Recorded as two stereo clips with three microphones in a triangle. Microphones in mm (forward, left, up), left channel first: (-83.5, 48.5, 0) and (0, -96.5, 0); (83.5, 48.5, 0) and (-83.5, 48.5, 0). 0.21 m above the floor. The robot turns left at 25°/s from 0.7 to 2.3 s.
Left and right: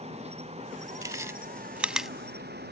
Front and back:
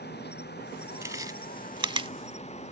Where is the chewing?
120° right; by 2.1 s 145° right.